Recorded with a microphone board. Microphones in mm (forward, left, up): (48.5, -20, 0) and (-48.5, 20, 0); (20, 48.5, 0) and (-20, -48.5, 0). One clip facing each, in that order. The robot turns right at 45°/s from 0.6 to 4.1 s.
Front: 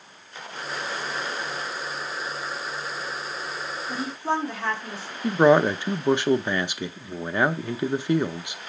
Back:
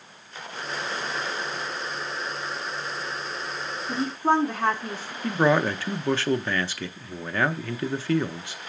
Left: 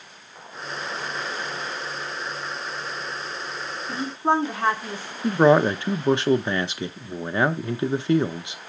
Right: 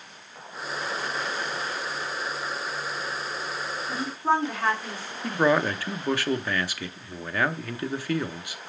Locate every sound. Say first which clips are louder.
3.9 s a woman speaking: back 5 dB, left 3 dB; 125° left, 1.6 m; by 5.1 s 135° left, 1.6 m
5.2 s a man speaking: front 4 dB, left 6 dB; 30° left, 0.6 m